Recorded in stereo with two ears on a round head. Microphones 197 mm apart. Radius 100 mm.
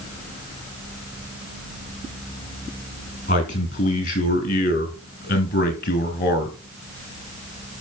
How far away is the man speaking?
About 4 m.